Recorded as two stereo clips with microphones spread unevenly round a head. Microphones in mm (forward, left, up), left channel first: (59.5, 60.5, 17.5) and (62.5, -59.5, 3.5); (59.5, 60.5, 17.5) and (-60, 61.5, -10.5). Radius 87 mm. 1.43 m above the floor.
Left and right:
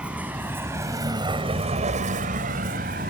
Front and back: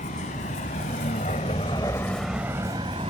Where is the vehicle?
5° right; by 3.1 s 115° right.